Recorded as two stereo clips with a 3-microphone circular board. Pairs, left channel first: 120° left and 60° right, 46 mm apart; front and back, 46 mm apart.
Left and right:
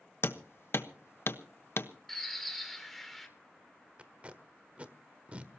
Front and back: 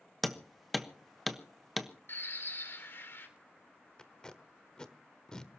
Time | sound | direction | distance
0.2 | hammering | 90° left | 1.1 m
2.1 | a bird | 30° left | 2.5 m
4.0 | tape being pulled | 55° right | 1.2 m